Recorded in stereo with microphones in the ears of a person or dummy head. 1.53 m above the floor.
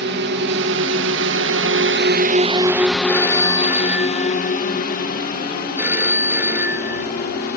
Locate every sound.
0.0 s a drone: 70° right (ahead or behind); by 7.6 s 50° left (ahead or behind)
3.1 s a phone ringing: 10° right (ahead or behind)